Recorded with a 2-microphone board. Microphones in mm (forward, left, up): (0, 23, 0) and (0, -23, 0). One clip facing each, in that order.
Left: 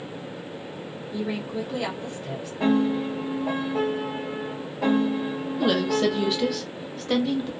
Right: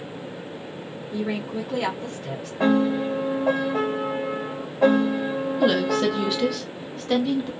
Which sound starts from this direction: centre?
A woman speaking, at 5.6 s.